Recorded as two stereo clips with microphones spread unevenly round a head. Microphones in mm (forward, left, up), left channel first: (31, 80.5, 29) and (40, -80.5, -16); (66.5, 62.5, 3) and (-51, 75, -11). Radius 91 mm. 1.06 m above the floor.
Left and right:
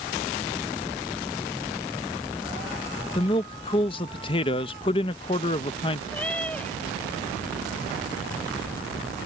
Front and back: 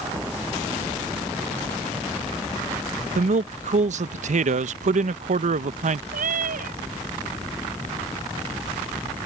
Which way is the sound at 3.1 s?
160° left.